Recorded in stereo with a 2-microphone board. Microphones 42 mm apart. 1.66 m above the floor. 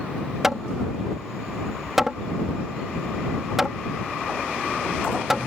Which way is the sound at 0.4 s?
10° right (ahead or behind).